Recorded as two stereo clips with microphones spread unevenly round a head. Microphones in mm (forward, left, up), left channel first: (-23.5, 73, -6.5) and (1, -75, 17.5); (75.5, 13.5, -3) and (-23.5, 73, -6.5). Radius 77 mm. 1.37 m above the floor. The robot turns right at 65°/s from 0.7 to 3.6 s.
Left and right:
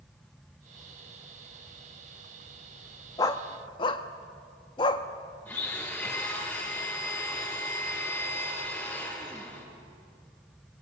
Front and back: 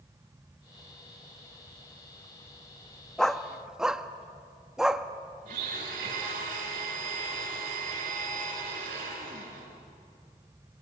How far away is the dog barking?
About 0.8 m.